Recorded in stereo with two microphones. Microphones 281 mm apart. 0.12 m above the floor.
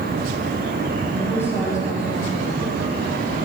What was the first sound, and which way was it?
A woman speaking, 5° left (ahead or behind).